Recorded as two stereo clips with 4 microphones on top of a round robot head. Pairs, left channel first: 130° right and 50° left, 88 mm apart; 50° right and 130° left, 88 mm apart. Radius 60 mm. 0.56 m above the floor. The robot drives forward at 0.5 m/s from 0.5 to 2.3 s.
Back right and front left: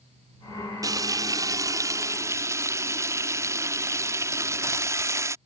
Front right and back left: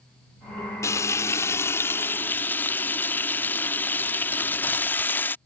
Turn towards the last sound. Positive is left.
turn(degrees=10)